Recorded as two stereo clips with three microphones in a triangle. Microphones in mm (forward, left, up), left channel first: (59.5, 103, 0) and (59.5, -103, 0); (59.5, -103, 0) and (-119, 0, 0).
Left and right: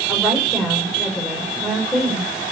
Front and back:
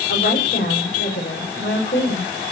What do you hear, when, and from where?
0.1 s a woman speaking: straight ahead, 5.5 m